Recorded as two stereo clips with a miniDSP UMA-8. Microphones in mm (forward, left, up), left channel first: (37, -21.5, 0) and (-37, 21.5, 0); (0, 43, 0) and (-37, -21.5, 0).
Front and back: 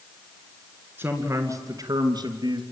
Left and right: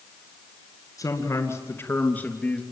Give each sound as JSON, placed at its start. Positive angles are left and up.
{"t": 1.0, "sound": "a man speaking", "azimuth_deg": 90, "distance_m": 3.0}